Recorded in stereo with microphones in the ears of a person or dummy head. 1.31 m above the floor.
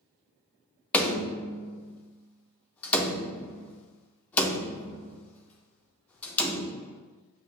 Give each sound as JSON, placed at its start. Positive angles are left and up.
{"t": 0.9, "sound": "a door slam", "side_deg": 10, "distance_m": 0.6}